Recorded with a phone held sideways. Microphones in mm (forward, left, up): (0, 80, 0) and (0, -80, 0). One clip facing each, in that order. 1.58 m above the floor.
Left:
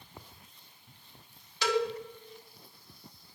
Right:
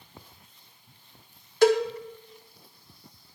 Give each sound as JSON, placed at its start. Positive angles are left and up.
{"t": 1.6, "sound": "a cowbell", "side_deg": -50, "distance_m": 1.0}